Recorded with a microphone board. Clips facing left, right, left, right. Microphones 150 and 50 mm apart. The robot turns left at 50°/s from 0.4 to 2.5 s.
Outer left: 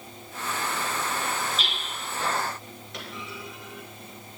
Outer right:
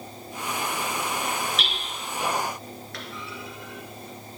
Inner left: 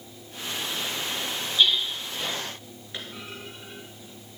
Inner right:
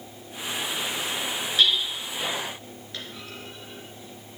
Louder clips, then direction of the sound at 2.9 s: Outer left 2 dB, inner left 2 dB; 20° left (ahead or behind).